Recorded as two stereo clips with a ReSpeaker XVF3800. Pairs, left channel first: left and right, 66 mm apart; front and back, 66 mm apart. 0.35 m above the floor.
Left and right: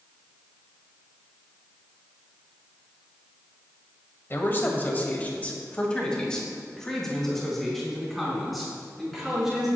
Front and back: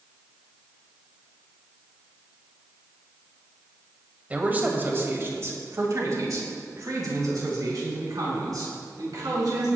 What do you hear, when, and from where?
4.3 s a man speaking: 125° left, 1.9 m; by 9.7 s 175° right, 5 m